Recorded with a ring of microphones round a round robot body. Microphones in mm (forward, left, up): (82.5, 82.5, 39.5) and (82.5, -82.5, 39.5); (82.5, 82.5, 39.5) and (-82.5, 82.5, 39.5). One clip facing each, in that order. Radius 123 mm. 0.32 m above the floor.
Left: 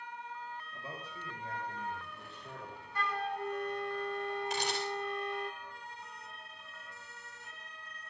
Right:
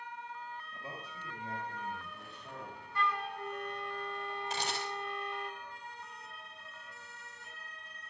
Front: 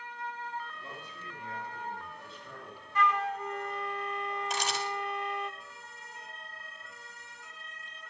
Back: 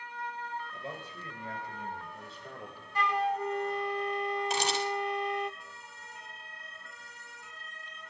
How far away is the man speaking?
About 7 m.